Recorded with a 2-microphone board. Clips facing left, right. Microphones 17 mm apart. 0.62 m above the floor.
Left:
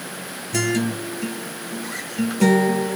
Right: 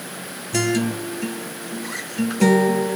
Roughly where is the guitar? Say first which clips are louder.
Right 1 dB; centre.